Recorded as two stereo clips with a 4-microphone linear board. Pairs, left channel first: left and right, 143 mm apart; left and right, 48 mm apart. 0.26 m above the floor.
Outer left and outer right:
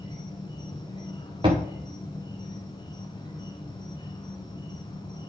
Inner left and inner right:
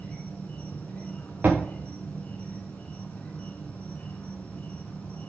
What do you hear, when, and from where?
0.0 s an insect: 30° left (ahead or behind), 1.6 m
1.4 s a thud: 30° right (ahead or behind), 4 m